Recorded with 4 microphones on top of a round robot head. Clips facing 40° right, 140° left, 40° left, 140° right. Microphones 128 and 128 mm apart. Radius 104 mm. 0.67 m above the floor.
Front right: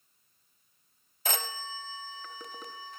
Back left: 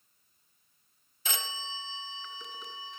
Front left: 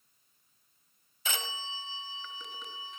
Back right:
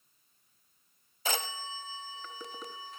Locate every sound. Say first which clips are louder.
1.2 s a phone ringing: front right 4 dB, back right 3 dB; 85° right, 0.7 m